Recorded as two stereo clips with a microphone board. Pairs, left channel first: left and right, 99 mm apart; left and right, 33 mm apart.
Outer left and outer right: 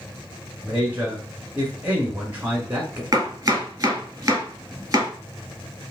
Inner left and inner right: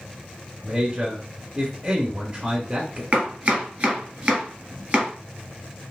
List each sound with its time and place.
0.6 s a man speaking: 15° right (ahead or behind), 1.0 m
3.1 s chopping: 35° right (ahead or behind), 1.5 m